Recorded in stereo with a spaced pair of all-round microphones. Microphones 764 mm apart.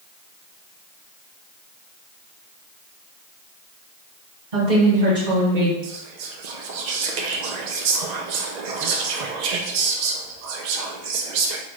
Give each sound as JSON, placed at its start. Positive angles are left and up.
{"t": 4.5, "sound": "a woman speaking", "side_deg": -70, "distance_m": 1.7}
{"t": 5.8, "sound": "whispering", "side_deg": -65, "distance_m": 0.5}